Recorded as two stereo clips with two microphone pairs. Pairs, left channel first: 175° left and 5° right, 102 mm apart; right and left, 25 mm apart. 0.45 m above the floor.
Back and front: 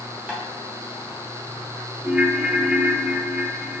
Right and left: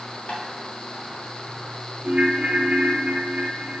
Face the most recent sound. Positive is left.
turn(degrees=65)